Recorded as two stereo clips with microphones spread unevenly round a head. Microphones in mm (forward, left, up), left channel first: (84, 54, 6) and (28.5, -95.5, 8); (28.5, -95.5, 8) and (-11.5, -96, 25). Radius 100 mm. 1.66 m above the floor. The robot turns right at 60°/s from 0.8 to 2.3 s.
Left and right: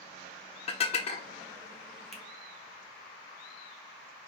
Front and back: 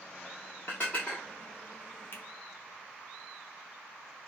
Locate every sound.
0.7 s dishes clattering: 75° left, 0.7 m; by 1.3 s 105° left, 0.7 m
2.1 s a finger snap: 20° right, 1.5 m; by 2.2 s 15° right, 1.5 m